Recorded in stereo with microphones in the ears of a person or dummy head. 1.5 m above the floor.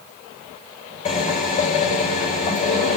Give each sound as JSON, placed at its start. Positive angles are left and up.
{"t": 1.1, "sound": "a drill", "side_deg": 35, "distance_m": 6.5}